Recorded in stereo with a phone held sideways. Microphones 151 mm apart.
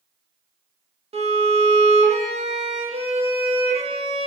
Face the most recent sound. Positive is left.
turn(degrees=-45)  # may be behind; listen again after turning